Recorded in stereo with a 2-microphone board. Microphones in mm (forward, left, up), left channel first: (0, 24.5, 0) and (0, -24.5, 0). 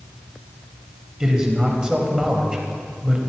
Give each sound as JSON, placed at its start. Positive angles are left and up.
{"t": 1.2, "sound": "a man speaking", "side_deg": -15, "distance_m": 1.1}